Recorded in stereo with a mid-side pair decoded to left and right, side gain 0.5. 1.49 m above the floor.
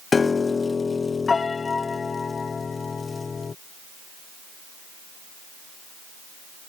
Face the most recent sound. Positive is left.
turn(degrees=30)